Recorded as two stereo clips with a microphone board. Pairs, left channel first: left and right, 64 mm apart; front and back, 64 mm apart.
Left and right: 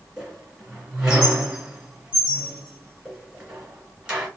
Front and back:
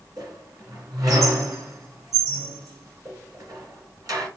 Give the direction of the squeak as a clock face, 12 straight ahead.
5 o'clock.